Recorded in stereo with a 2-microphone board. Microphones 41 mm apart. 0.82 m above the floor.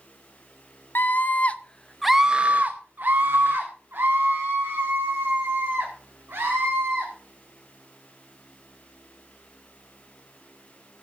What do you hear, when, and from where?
0.9 s a scream: 55° left (ahead or behind), 1.1 m; by 7.1 s 70° right (ahead or behind), 4.5 m